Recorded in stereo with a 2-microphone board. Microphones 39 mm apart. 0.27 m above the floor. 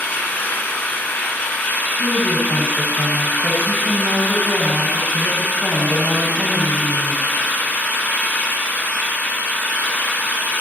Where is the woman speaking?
30° right (ahead or behind), 1.9 m.